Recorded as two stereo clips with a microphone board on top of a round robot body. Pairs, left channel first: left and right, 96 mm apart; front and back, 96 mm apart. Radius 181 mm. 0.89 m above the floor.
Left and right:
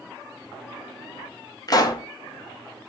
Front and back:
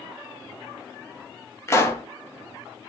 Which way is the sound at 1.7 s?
55° left.